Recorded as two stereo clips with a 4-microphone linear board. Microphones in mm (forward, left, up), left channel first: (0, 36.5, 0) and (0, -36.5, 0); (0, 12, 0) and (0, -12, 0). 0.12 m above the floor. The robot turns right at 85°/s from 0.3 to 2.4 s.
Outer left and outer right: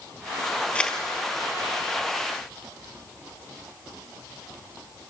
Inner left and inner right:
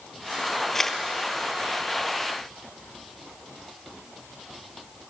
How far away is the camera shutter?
About 1.8 m.